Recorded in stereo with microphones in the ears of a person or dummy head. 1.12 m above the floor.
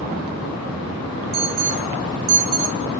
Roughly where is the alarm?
Right.